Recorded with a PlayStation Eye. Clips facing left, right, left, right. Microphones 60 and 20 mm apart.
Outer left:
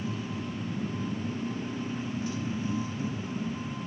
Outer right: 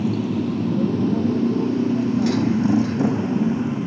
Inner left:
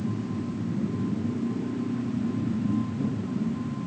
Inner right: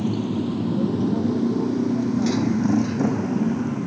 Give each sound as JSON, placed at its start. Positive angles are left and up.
{"t": 0.0, "sound": "a motorcycle", "side_deg": -75}